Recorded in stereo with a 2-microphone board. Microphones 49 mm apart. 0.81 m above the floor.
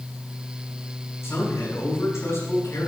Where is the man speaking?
80° left, 4.5 m.